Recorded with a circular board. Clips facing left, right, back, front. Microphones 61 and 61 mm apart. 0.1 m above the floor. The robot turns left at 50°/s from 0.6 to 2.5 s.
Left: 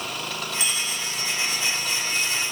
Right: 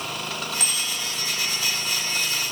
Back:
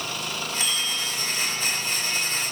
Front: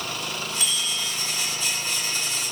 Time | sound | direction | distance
0.6 | a bicycle bell | 115° right | 5.5 m